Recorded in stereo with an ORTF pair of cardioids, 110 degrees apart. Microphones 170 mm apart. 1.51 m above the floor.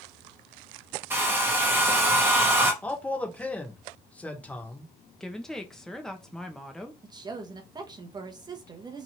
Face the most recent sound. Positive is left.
turn(degrees=-25)